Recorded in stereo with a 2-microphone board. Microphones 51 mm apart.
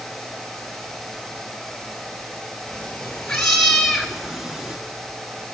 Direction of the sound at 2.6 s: 15° left (ahead or behind).